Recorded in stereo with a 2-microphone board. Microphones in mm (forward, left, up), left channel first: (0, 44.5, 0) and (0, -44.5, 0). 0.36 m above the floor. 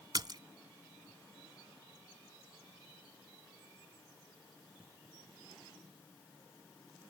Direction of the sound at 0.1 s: 50° right (ahead or behind).